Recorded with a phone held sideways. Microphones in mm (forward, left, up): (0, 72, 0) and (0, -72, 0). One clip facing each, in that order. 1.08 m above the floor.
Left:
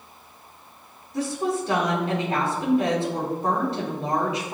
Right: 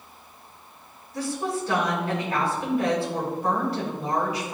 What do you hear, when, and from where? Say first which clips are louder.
1.1 s a woman speaking: left 3 dB; 25° left (ahead or behind), 3 m